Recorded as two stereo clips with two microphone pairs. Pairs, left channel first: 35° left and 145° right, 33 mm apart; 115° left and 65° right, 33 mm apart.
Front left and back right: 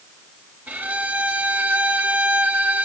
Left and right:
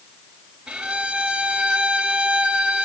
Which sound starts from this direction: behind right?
A violin, at 0.7 s.